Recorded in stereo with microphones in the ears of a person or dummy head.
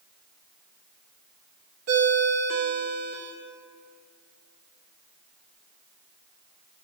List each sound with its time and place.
1.9 s a ringtone: 45° right (ahead or behind), 1.2 m